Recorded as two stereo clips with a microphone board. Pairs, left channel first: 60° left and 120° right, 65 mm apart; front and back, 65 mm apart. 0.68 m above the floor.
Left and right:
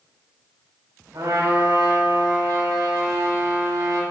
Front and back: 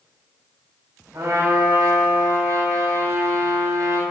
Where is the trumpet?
140° right, 4 m.